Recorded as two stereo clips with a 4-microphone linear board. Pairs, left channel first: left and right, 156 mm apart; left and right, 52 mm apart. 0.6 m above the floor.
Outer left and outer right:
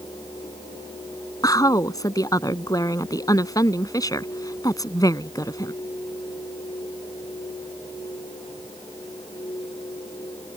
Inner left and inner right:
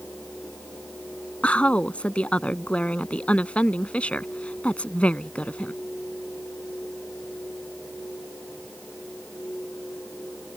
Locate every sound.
1.4 s a woman speaking: 25° left (ahead or behind)